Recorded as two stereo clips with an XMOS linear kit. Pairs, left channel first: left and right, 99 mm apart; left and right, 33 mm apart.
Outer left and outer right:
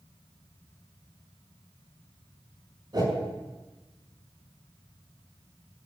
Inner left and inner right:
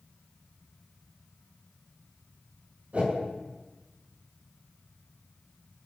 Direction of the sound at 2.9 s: 45° right (ahead or behind).